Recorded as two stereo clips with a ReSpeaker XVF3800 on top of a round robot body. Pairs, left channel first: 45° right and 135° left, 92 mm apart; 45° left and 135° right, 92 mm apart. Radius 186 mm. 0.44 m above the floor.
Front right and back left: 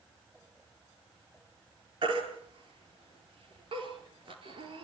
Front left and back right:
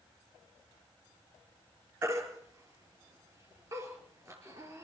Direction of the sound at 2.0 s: 165° left.